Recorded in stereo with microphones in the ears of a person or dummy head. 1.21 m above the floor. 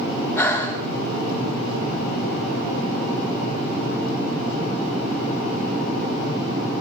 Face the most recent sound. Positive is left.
turn(degrees=15)  # may be behind; listen again after turning